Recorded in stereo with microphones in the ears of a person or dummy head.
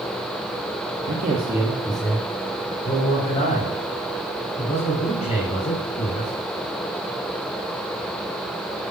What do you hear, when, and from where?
1.1 s a man speaking: 45° right (ahead or behind), 1.2 m; by 6.3 s 40° left (ahead or behind), 6.5 m